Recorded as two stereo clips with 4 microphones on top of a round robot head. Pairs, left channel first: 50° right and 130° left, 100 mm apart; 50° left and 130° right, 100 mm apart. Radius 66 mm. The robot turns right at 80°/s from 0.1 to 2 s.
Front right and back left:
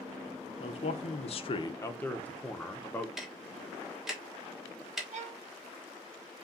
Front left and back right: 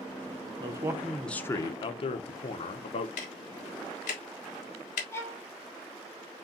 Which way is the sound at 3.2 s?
45° left.